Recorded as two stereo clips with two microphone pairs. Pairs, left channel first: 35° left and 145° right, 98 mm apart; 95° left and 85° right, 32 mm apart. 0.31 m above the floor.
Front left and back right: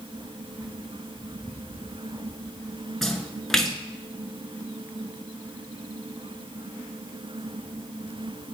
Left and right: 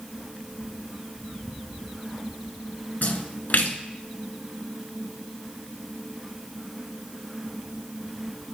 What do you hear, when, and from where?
3.0 s a splash: 125° left, 0.9 m